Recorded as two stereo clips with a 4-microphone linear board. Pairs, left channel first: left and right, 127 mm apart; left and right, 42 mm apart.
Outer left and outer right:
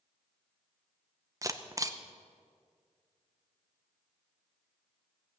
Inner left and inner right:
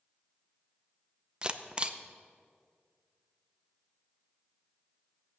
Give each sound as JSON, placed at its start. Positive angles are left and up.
{"t": 1.4, "sound": "a camera shutter", "side_deg": -25, "distance_m": 0.7}